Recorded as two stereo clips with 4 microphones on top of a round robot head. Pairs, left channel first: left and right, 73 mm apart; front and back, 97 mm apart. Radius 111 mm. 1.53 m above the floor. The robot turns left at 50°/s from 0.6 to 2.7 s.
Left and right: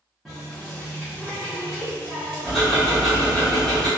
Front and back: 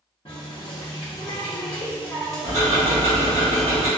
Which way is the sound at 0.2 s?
5° left.